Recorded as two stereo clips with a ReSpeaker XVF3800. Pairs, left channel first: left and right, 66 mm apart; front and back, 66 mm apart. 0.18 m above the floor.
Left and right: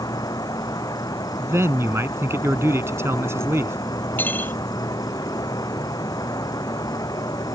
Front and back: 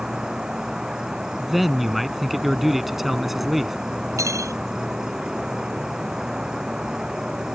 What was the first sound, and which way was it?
An insect, 100° left.